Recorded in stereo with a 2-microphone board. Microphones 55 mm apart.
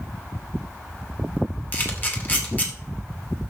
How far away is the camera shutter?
About 2.5 m.